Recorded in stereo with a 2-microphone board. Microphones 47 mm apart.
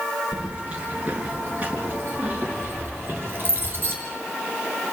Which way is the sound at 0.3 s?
20° right (ahead or behind).